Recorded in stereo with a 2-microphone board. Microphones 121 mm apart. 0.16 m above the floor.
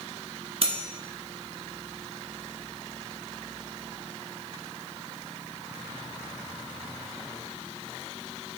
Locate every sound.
0.6 s cutlery clinking: 50° right (ahead or behind), 1.2 m